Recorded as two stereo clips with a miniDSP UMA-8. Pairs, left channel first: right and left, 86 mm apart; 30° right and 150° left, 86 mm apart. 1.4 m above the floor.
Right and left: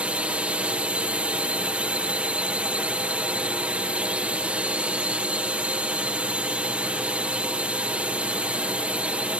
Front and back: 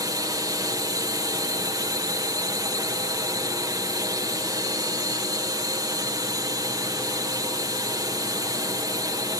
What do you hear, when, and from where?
0.0 s a drone: 160° left